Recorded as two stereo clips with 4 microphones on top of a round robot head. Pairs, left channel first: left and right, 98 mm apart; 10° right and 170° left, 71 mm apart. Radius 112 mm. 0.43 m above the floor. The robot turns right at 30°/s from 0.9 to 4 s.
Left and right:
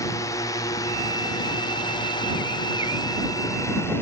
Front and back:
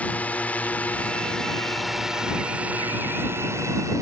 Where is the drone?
50° left; by 4.0 s 150° left.